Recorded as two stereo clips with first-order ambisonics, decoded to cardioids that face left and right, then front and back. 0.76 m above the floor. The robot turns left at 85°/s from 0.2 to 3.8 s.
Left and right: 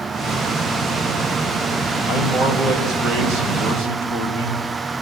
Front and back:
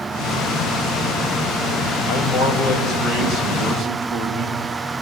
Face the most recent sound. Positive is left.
turn(degrees=-125)